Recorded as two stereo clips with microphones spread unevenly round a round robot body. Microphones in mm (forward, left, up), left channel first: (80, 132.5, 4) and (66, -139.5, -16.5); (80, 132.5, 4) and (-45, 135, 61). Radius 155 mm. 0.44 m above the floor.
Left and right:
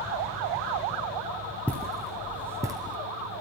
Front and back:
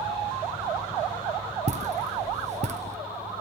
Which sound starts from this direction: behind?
Footsteps, at 1.7 s.